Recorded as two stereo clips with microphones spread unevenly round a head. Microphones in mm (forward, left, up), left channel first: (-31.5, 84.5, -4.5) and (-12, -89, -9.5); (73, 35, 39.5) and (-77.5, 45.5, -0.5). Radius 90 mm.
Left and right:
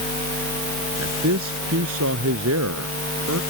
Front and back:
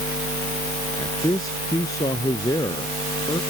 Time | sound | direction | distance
1.0 | a man speaking | 75° right | ?